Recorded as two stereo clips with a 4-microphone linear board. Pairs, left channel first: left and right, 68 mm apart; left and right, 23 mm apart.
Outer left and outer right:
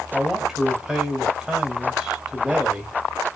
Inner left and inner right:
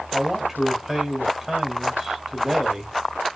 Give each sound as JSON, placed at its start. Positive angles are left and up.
{"t": 0.1, "sound": "a man speaking", "side_deg": -10, "distance_m": 1.4}